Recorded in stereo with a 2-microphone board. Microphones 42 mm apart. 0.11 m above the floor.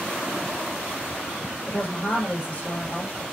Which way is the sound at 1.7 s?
35° left (ahead or behind).